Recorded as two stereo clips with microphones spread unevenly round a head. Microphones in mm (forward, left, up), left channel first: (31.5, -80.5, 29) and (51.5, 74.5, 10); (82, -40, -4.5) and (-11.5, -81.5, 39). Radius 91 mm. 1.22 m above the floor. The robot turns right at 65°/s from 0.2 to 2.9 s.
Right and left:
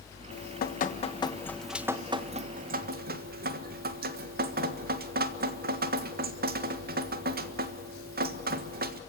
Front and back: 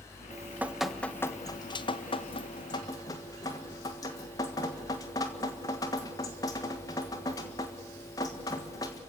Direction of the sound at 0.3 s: 95° right.